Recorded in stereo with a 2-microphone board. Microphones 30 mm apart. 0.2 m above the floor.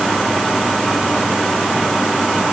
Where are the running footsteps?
I don't hear running footsteps.